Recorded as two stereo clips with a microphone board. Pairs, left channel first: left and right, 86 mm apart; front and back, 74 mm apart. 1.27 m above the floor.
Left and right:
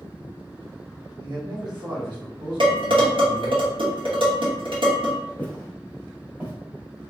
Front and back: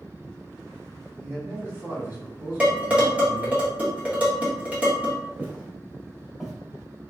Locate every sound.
1.2 s a man speaking: 120° right, 1.0 m
2.6 s dishes clattering: 110° right, 1.1 m
5.4 s footsteps: 135° left, 1.3 m; by 6.5 s 95° right, 1.4 m